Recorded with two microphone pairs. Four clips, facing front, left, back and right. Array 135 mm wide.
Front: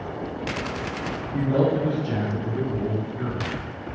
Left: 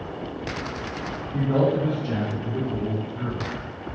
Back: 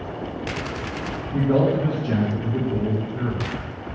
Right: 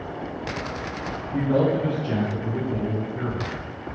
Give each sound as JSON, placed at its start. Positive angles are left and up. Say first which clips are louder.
{"t": 1.3, "sound": "a man speaking", "louder": "right 1 dB, back 2 dB", "azimuth_deg": -160, "distance_m": 2.0}